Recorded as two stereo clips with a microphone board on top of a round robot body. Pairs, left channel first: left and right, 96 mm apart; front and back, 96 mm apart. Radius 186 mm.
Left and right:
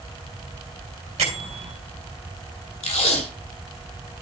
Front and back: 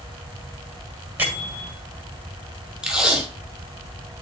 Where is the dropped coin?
No dropped coin in this recording.